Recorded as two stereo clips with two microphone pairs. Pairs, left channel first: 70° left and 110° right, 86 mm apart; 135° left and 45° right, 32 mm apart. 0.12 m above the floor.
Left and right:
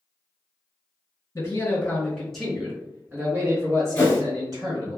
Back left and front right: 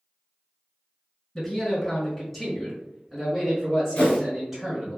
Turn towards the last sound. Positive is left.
turn(degrees=135)